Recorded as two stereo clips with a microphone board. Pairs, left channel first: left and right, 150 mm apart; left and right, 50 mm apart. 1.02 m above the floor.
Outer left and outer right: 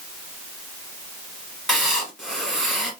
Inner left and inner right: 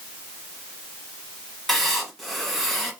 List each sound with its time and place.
1.7 s writing: centre (ahead or behind), 2 m